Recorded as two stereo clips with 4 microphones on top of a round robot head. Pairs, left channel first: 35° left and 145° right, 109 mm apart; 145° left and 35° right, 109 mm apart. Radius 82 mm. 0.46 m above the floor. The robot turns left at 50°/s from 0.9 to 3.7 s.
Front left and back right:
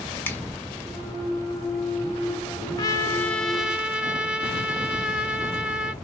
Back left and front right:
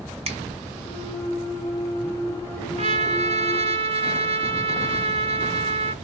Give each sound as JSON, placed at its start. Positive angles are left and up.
{"t": 0.2, "sound": "a finger snap", "azimuth_deg": -35, "distance_m": 2.5}
{"t": 2.8, "sound": "a trumpet", "azimuth_deg": -20, "distance_m": 1.7}